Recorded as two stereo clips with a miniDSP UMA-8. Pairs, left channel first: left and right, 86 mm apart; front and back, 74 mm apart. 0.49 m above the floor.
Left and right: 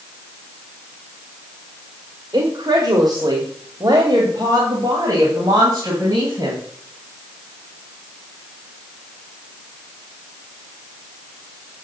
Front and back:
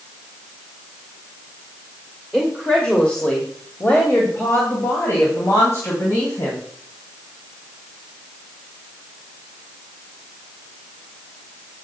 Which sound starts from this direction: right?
A woman speaking, at 2.3 s.